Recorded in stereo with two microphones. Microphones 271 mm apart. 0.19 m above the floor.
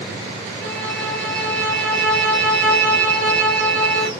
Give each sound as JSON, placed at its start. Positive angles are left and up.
{"t": 0.6, "sound": "a violin", "side_deg": 5, "distance_m": 1.1}